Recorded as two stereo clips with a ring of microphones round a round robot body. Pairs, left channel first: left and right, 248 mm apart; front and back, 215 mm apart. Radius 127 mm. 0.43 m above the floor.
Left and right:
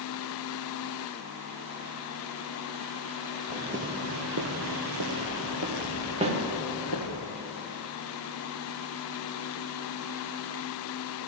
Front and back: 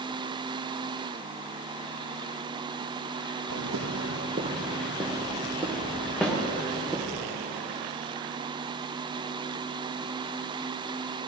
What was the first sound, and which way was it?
Footsteps, 165° right.